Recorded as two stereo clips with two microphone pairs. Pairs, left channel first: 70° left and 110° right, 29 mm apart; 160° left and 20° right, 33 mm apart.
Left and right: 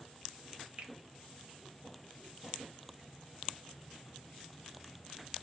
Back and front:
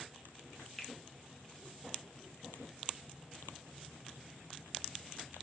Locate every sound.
0.8 s a finger snap: 115° right, 1.1 m